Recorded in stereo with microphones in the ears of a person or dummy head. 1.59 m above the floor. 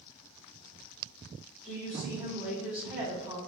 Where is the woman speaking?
15° right (ahead or behind), 3 m.